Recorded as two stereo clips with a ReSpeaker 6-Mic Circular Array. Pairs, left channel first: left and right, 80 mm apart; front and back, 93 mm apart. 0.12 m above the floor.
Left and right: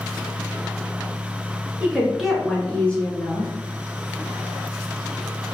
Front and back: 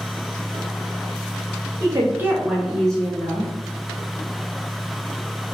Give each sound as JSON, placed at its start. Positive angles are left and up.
{"t": 1.8, "sound": "a woman speaking", "azimuth_deg": -160, "distance_m": 1.4}